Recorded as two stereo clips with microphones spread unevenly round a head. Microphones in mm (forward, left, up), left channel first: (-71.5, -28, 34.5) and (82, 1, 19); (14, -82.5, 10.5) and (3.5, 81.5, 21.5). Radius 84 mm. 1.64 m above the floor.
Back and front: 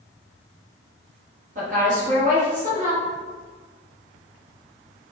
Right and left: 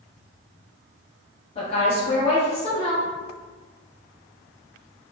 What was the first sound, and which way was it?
A woman speaking, 30° right.